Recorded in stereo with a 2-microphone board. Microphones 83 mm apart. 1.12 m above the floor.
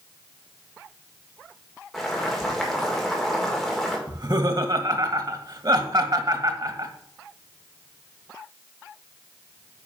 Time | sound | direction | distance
1.9 | boiling | centre (ahead or behind) | 2.5 m
4.1 | laughter | 55° right (ahead or behind) | 1.3 m